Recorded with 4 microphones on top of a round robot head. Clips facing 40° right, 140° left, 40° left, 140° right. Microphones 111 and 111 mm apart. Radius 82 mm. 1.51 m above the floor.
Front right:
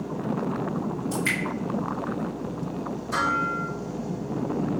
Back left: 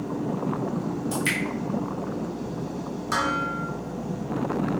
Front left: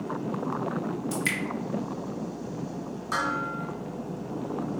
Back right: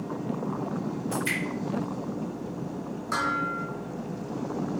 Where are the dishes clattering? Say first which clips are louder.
Even, back right 1 dB; 125° left, 3 m.